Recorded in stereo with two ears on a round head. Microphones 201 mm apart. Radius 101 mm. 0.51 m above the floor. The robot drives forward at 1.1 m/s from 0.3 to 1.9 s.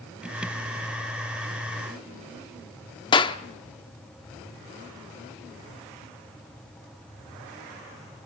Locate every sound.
3.1 s a clap: 20° left (ahead or behind), 0.7 m